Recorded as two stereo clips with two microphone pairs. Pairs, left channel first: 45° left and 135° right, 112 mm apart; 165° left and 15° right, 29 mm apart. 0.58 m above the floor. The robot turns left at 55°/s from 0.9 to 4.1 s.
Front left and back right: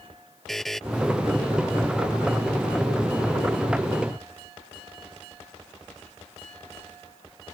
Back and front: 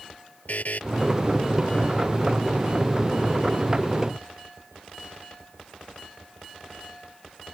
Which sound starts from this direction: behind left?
A buzzer, at 0.5 s.